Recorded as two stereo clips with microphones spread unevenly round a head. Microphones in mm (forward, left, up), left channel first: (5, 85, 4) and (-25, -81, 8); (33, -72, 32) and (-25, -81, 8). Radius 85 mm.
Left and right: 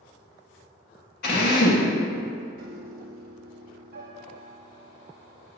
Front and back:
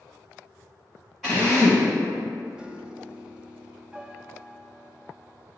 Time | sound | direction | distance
1.2 | a drill | 105° left | 1.4 m
2.6 | a piano | 80° right | 0.6 m